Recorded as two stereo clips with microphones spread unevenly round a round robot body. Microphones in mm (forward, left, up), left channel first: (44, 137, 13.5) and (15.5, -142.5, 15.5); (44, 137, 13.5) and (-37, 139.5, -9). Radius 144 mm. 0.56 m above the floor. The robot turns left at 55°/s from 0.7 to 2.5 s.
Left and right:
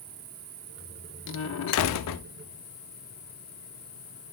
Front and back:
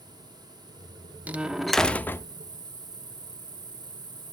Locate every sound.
0.0 s an insect: 95° right, 1.7 m; by 4.3 s 165° left, 1.7 m
1.3 s a door slam: 125° left, 0.6 m; by 2.2 s 70° left, 0.6 m